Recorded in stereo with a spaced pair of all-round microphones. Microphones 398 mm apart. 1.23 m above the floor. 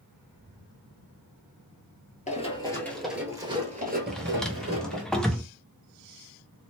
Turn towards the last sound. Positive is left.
turn(degrees=0)  # may be behind; listen again after turning